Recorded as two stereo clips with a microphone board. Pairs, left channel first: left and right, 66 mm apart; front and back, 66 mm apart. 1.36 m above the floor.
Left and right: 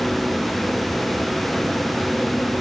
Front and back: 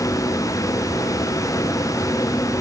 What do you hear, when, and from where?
Only background noise.